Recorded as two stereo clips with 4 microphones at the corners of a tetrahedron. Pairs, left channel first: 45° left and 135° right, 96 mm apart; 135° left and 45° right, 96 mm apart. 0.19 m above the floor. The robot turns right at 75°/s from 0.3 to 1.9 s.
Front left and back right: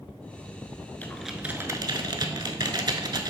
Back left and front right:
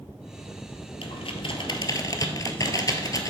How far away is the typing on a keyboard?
About 0.6 m.